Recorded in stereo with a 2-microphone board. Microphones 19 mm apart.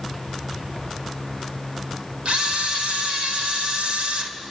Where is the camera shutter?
65° right (ahead or behind), 2.5 m.